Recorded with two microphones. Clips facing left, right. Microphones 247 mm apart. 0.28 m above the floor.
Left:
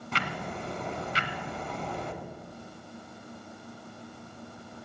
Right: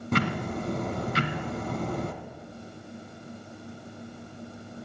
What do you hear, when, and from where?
0.1 s ticking: 50° right (ahead or behind), 1.6 m